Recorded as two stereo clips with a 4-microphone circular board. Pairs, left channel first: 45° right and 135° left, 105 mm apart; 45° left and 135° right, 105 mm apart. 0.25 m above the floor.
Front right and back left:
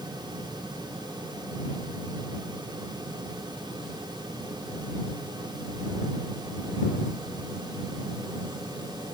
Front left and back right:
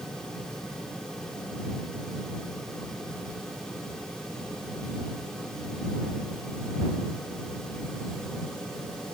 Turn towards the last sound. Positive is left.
No sound to turn to.